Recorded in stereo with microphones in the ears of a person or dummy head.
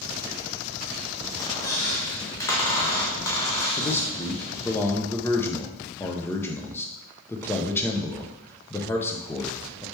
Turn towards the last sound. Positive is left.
turn(degrees=10)  # may be behind; listen again after turning